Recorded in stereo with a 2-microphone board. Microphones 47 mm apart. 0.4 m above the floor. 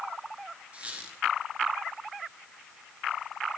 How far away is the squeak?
About 4 m.